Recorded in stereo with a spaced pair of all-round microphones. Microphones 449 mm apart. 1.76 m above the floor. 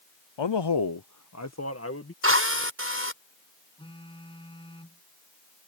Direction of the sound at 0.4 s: 80° left.